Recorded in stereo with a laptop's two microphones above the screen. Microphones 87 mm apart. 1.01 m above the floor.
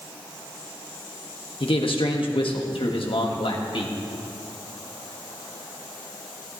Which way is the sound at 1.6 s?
70° left (ahead or behind).